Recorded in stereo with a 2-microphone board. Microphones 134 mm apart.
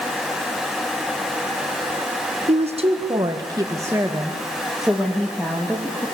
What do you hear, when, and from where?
2.5 s a woman speaking: 55° right (ahead or behind), 1.7 m; by 6.1 s 10° left (ahead or behind), 3 m